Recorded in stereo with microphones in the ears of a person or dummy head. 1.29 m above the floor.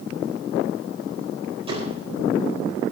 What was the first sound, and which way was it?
A door slam, 30° right (ahead or behind).